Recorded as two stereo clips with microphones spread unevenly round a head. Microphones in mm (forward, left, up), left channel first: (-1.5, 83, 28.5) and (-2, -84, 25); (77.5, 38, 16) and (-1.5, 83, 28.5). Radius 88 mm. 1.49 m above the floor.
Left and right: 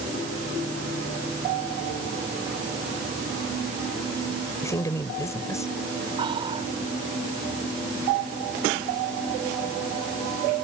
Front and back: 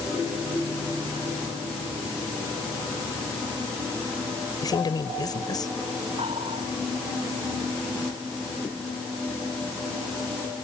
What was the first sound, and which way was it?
A woman speaking, 15° left.